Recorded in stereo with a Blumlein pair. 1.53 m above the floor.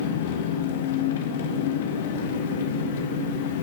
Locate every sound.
0.0 s an engine running: 55° left, 1.5 m